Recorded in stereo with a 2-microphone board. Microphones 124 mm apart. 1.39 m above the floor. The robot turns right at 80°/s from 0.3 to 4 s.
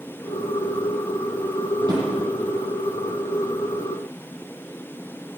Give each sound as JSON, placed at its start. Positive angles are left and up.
{"t": 1.8, "sound": "a drawer", "side_deg": -40, "distance_m": 10.0}